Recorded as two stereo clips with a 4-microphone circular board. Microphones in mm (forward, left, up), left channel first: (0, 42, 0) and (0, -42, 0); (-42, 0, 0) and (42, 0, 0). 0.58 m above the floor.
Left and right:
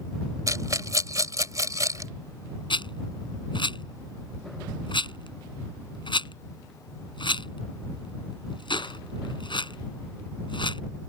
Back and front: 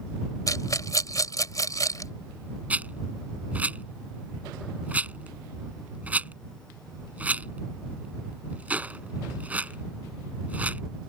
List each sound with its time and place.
0.5 s a rattle: 135° right
2.7 s a rattle: 75° left